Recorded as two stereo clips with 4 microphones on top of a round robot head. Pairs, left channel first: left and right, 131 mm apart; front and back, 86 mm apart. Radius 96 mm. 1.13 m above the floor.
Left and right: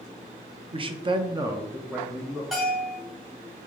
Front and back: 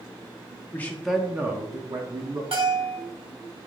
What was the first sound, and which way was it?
A man speaking, 60° right.